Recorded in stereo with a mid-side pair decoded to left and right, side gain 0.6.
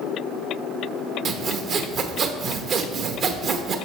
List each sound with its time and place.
1.2 s sawing: 50° right, 0.9 m